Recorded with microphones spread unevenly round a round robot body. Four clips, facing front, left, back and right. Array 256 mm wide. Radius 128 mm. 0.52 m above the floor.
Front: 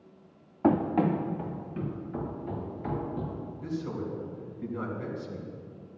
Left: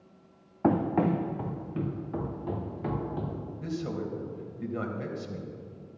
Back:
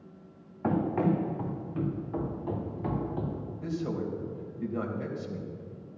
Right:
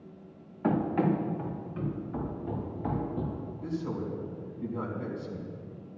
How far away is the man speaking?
About 3 m.